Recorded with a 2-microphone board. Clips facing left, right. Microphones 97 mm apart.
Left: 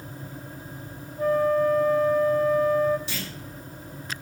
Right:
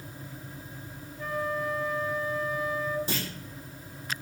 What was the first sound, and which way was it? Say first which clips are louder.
A flute: left 10 dB; 45° left (ahead or behind).